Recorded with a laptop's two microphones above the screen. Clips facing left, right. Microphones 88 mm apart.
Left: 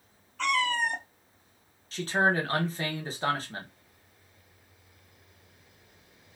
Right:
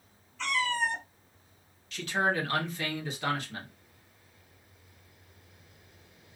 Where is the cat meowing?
60° left (ahead or behind), 0.8 m.